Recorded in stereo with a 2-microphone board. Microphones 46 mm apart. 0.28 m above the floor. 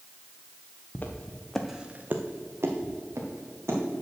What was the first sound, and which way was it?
Footsteps, 45° left (ahead or behind).